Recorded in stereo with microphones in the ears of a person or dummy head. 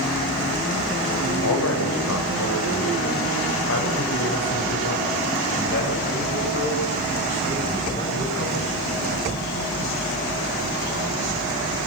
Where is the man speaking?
80° left, 5.5 m; by 8.8 s 35° left (ahead or behind), 8 m.